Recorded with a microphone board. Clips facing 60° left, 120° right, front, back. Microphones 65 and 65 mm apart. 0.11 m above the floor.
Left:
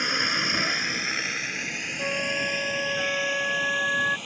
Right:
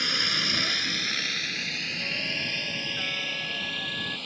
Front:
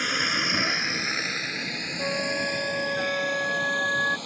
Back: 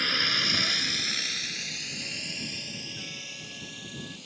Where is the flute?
20° left.